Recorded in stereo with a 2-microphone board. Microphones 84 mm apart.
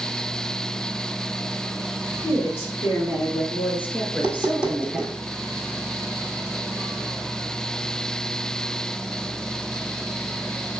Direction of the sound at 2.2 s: 30° left (ahead or behind).